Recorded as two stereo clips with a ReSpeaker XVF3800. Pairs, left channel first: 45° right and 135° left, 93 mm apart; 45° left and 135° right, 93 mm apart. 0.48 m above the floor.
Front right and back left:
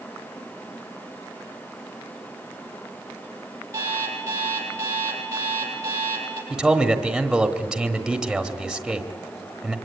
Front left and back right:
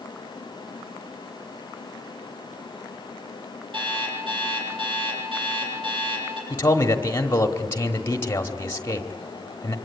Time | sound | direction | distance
3.7 | an alarm clock | 165° right | 7 m
6.5 | a man speaking | 55° left | 1.4 m